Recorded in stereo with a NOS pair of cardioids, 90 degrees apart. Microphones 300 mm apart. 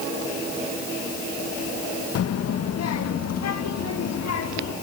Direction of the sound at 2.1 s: 55° left.